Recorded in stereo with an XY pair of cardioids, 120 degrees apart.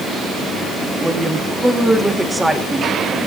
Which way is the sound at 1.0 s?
15° right.